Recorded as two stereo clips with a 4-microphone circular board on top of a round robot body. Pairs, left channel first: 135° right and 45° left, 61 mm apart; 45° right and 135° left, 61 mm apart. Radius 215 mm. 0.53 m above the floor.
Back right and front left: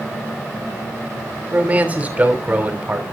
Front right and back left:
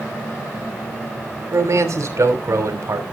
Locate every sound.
1.5 s a man speaking: 110° left, 3 m